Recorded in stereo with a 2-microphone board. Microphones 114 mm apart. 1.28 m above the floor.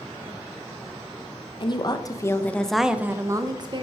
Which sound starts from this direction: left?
A woman speaking, at 1.6 s.